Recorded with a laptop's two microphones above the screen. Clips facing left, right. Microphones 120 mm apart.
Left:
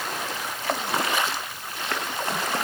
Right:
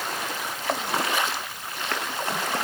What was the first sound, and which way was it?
Only background noise.